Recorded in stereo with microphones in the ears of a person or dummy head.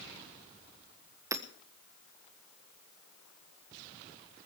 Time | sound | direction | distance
1.3 | hammering | 15° right (ahead or behind) | 1.3 m